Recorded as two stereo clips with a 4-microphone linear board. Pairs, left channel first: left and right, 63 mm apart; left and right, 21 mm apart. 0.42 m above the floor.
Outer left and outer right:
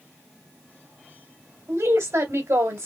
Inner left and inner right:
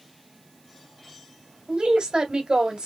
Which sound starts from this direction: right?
A woman speaking, at 1.7 s.